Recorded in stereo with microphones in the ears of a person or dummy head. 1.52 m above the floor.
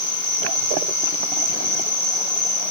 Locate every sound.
0.0 s an insect: 20° left (ahead or behind), 1.8 m